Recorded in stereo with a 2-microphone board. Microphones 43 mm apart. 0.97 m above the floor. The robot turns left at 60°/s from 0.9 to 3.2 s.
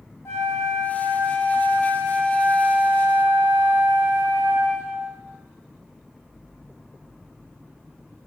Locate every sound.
0.2 s a flute: 90° left, 0.7 m; by 5.1 s 45° right, 0.7 m